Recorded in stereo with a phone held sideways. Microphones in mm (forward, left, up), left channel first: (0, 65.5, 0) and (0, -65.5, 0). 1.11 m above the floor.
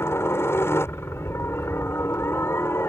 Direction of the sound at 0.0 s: 20° left (ahead or behind).